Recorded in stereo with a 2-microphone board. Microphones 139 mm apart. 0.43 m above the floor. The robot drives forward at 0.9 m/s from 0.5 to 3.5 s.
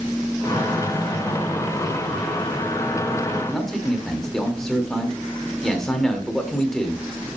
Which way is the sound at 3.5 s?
5° left (ahead or behind).